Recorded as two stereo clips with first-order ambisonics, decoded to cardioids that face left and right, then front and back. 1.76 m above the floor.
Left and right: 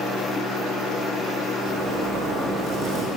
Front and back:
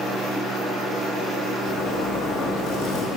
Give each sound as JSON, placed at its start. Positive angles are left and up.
{"t": 1.6, "sound": "a zipper", "azimuth_deg": -30, "distance_m": 2.0}